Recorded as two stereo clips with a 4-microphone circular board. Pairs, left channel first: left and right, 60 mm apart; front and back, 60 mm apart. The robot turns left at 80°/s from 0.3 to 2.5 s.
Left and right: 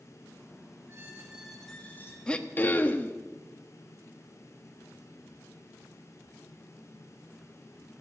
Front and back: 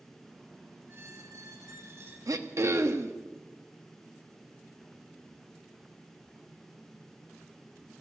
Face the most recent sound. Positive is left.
turn(degrees=145)